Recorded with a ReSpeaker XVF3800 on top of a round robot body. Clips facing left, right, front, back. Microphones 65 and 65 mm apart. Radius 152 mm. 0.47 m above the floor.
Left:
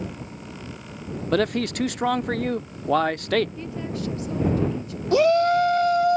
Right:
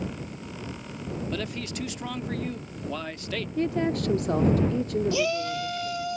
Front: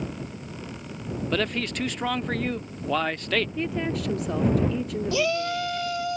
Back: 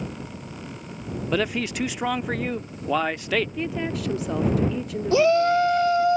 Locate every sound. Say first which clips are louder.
1.3 s a man speaking: left 10 dB, back 3 dB; 100° left
3.6 s a woman speaking: right 5 dB, even; 90° right
5.1 s a shout: left 9 dB, back 9 dB; 125° left